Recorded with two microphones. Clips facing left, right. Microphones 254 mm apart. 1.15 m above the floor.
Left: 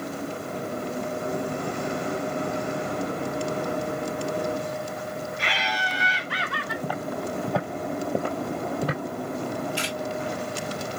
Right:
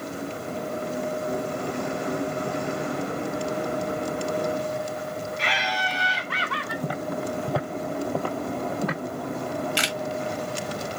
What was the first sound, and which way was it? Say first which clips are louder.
Laughter: right 1 dB; 30° left (ahead or behind).